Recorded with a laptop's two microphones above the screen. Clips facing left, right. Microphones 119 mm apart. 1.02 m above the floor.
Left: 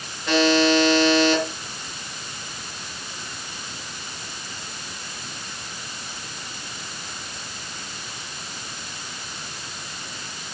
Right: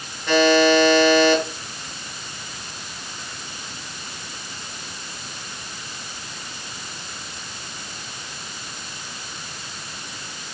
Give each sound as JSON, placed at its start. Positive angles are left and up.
{"t": 0.3, "sound": "a buzzer", "side_deg": 0, "distance_m": 4.0}